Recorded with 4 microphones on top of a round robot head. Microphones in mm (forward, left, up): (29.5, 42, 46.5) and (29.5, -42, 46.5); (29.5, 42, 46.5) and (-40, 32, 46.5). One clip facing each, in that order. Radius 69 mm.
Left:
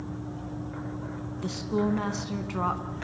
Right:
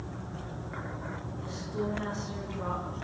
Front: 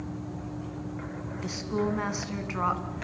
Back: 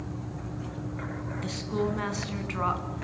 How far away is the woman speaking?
About 4 m.